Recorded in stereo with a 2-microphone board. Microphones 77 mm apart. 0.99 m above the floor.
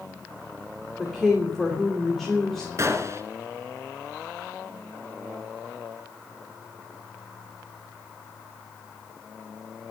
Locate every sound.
1.0 s a woman speaking: 5° left (ahead or behind), 3 m
2.8 s a gunshot: 40° right (ahead or behind), 2.5 m